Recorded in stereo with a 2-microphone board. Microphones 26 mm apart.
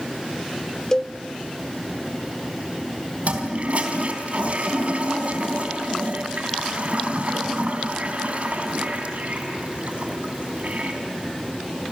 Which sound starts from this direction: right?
A toilet flushing, at 3.2 s.